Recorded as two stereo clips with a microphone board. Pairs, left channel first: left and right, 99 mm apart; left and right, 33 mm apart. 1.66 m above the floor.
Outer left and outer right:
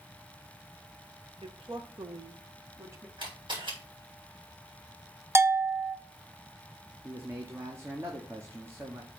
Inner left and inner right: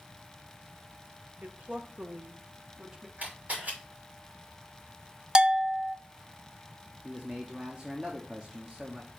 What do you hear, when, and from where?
1.4 s a woman speaking: 60° right (ahead or behind), 1.1 m; by 3.1 s 25° right (ahead or behind), 1.2 m
3.2 s a camera shutter: 50° right (ahead or behind), 3 m
5.3 s a bell: 25° right (ahead or behind), 0.6 m
7.0 s a man speaking: 25° right (ahead or behind), 1.0 m